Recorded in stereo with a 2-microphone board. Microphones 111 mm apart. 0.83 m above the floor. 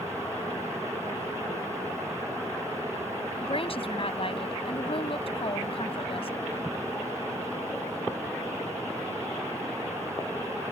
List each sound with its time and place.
3.4 s a woman speaking: 55° left (ahead or behind)